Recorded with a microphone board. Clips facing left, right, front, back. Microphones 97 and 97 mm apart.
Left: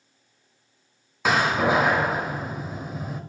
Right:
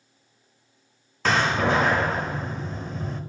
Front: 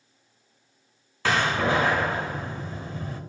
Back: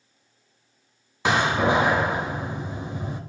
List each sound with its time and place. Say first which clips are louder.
1.2 s a door slam: left 1 dB, back 3 dB; 155° left, 0.5 m